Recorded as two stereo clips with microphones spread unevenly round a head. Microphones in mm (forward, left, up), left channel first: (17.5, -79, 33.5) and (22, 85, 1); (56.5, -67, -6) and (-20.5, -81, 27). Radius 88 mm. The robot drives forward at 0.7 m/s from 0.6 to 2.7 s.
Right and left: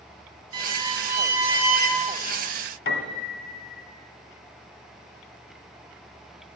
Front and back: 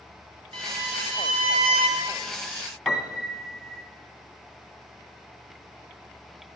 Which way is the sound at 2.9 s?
85° right.